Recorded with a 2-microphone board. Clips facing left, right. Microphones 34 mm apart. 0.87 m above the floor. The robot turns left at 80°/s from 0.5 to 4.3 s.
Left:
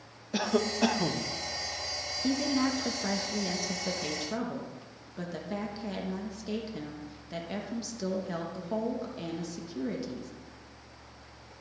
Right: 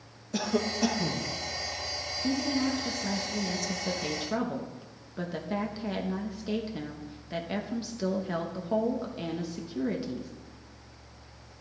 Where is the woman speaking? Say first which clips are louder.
Even; 135° left, 1.0 m; by 10.3 s 30° right, 1.0 m.